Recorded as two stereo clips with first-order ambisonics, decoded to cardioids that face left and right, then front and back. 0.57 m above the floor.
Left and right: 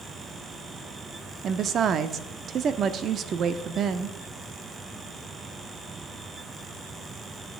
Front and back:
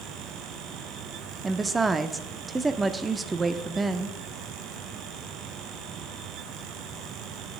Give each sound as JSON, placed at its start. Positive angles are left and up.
{"t": 1.4, "sound": "a woman speaking", "azimuth_deg": -115, "distance_m": 0.6}